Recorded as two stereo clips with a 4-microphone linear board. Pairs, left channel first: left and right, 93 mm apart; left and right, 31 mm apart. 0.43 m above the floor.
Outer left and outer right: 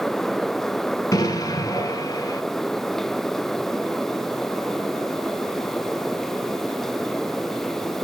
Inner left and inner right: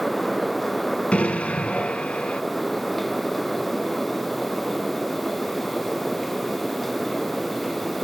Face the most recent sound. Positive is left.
turn(degrees=40)  # may be behind; listen again after turning